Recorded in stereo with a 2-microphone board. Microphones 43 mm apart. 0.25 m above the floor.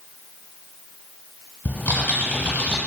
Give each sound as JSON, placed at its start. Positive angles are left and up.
{"t": 1.6, "sound": "typing on a keyboard", "side_deg": 50, "distance_m": 1.2}